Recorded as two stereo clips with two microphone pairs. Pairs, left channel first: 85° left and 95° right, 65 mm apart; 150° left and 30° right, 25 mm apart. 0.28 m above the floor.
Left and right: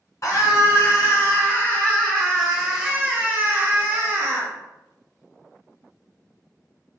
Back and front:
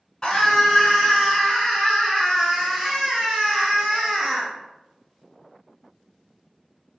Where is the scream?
100° left, 1.9 m; by 4.5 s 120° right, 1.7 m.